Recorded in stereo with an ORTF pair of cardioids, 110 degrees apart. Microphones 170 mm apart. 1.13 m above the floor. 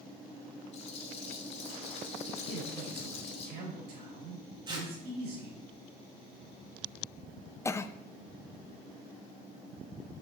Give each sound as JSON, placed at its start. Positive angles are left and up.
{"t": 0.7, "sound": "a rattle", "azimuth_deg": 40, "distance_m": 1.8}
{"t": 2.5, "sound": "a man speaking", "azimuth_deg": -65, "distance_m": 5.0}
{"t": 4.7, "sound": "tearing paper", "azimuth_deg": -30, "distance_m": 2.0}
{"t": 7.7, "sound": "a cough", "azimuth_deg": 15, "distance_m": 0.7}